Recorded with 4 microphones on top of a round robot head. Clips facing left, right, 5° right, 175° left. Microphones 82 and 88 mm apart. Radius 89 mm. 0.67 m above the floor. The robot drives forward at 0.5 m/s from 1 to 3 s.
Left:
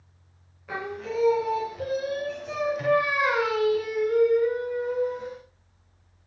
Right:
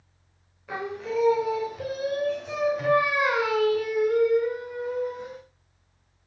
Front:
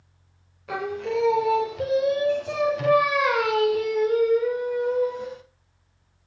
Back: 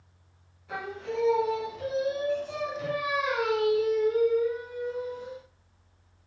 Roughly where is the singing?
Ahead.